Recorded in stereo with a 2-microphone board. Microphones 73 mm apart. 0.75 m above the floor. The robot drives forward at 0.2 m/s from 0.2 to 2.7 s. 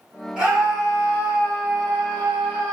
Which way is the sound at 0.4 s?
15° right (ahead or behind).